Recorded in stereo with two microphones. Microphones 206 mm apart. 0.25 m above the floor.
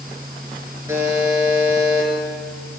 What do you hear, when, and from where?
0.9 s a buzzer: 10° right (ahead or behind), 2.5 m